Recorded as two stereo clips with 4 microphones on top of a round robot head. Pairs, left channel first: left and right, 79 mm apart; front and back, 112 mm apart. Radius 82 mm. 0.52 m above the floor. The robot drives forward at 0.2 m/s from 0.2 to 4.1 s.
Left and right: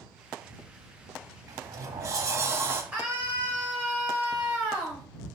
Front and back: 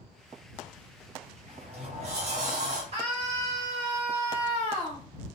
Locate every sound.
1.5 s a sliding door: 125° right, 0.5 m; by 2.8 s 145° right, 0.7 m
2.9 s a scream: 155° right, 2 m; by 5.0 s 160° right, 2.5 m